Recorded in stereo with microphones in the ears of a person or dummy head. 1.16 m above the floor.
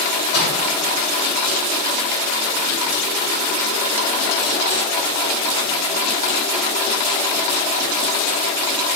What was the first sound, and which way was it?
A microwave, 80° left.